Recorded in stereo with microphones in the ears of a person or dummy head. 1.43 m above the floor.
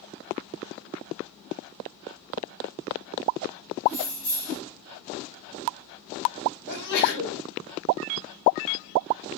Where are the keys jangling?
50° left (ahead or behind), 3 m.